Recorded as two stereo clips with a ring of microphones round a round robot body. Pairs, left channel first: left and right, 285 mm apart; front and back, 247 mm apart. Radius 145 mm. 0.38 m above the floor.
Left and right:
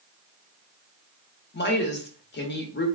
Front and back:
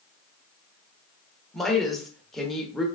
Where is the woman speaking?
90° left, 0.9 m.